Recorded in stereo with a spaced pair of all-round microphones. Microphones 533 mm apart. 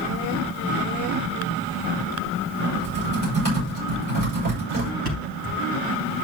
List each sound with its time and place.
2.7 s typing on a keyboard: 80° right, 7 m
5.0 s a thud: 40° right (ahead or behind), 4.5 m